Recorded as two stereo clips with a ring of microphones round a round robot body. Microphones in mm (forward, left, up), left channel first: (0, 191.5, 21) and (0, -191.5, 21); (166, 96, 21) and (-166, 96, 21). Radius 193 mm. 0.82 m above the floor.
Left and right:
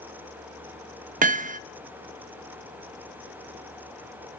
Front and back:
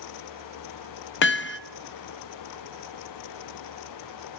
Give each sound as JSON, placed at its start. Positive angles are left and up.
{"t": 1.2, "sound": "hammering", "azimuth_deg": -30, "distance_m": 0.7}